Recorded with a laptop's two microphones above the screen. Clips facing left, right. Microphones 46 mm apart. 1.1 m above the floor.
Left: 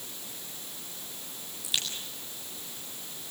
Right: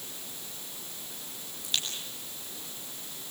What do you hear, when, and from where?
1.6 s a crack: 5° left (ahead or behind), 7.5 m